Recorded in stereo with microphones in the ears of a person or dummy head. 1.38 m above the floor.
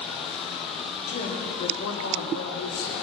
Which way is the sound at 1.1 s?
35° left (ahead or behind).